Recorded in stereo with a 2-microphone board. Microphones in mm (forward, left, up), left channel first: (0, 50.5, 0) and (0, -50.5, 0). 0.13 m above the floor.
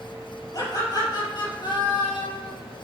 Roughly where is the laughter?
Left.